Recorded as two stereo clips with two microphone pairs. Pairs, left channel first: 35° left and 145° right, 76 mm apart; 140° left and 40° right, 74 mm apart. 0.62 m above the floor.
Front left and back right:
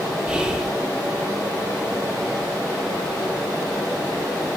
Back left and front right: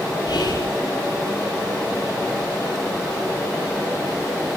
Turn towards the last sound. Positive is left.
turn(degrees=135)